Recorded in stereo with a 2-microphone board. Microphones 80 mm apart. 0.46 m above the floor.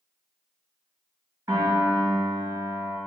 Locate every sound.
1.5 s a piano: 45° right (ahead or behind), 1.2 m